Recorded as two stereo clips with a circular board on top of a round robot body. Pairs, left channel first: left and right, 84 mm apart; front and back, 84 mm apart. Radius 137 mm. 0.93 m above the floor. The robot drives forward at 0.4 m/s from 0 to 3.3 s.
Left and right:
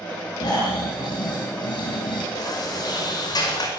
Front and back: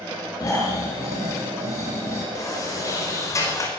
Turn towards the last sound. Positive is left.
turn(degrees=55)